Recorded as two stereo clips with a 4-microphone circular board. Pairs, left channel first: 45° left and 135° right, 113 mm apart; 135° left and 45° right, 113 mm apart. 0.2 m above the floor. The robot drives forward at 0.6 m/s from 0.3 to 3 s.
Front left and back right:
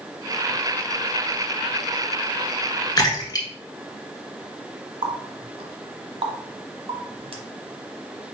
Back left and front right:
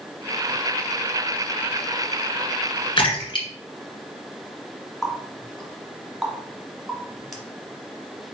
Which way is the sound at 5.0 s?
130° right.